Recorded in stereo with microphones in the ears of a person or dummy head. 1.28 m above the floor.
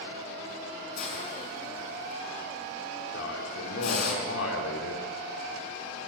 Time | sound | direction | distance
1.0 | a hiss | 65° left (ahead or behind) | 6.5 m
3.1 | a man speaking | 80° left | 3 m